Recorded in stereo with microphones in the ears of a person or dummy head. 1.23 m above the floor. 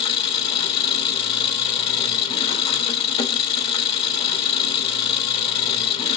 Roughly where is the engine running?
Left.